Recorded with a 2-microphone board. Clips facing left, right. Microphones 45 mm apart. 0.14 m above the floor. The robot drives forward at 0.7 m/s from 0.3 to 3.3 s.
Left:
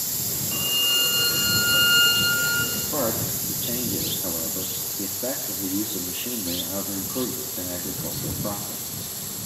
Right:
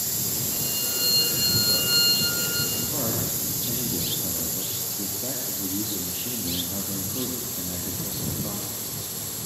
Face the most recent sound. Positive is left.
turn(degrees=25)  # may be behind; listen again after turning